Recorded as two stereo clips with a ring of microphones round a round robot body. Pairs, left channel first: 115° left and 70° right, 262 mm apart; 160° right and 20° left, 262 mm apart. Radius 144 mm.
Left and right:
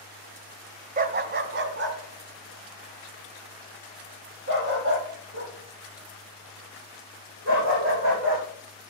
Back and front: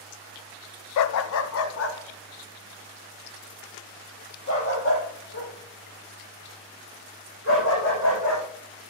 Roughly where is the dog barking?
Behind right.